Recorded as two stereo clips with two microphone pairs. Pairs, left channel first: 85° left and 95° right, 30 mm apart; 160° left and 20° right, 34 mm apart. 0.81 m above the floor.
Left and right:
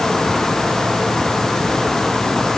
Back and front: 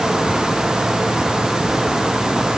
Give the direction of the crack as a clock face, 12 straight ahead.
I don't hear a crack.